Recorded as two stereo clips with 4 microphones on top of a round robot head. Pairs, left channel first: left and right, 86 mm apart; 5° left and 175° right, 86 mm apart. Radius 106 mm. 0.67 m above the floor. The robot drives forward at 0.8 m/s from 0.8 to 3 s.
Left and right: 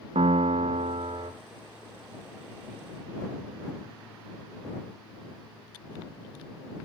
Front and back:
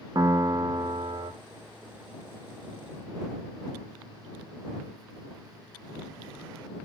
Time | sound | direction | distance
0.1 | a piano | 115° right | 0.7 m